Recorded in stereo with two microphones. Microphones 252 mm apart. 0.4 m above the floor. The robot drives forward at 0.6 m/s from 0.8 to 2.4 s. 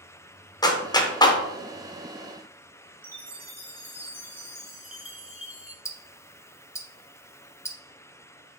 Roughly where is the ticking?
Centre.